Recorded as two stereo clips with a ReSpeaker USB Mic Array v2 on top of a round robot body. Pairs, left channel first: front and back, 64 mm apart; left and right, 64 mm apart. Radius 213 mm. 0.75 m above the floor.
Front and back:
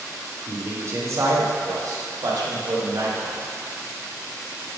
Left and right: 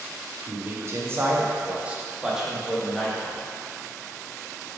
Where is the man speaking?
130° right, 1.8 m; by 3.4 s 170° left, 1.8 m.